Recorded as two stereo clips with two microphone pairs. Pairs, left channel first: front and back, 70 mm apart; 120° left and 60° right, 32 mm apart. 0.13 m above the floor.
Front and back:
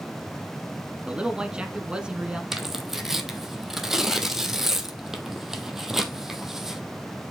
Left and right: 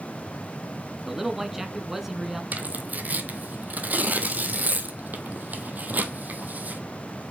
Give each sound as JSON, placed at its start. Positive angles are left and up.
{"t": 1.1, "sound": "a man speaking", "azimuth_deg": -125, "distance_m": 1.2}
{"t": 2.5, "sound": "tearing paper", "azimuth_deg": -90, "distance_m": 1.1}